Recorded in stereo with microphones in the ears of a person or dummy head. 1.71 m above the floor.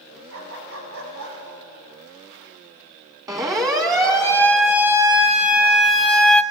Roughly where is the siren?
Right.